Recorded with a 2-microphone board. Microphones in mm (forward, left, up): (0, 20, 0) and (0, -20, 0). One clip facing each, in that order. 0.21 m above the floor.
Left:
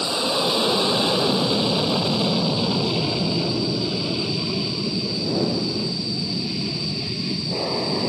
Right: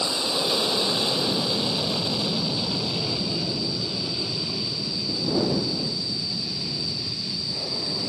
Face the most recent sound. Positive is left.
turn(degrees=40)  # may be behind; listen again after turning